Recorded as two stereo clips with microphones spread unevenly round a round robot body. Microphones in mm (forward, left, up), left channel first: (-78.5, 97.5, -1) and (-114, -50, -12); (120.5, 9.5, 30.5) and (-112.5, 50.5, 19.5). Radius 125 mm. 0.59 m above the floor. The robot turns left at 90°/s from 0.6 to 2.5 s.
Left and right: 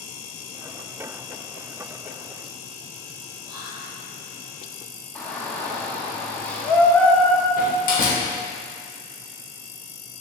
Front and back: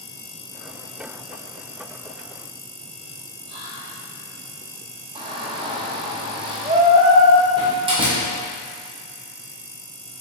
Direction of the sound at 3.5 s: 170° right.